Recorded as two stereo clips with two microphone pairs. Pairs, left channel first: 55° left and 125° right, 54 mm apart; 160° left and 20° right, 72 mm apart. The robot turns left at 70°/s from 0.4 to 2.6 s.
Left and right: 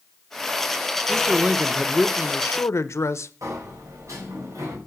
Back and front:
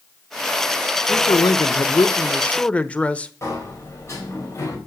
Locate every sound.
1.1 s a man speaking: 165° right, 0.8 m; by 3.3 s 90° left, 0.8 m
3.4 s a sliding door: 145° right, 4 m